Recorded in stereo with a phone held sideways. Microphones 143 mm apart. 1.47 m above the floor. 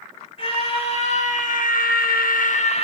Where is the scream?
40° left (ahead or behind), 2.5 m.